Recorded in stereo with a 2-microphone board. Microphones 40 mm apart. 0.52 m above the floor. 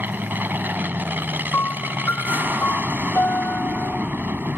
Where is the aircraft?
50° right (ahead or behind).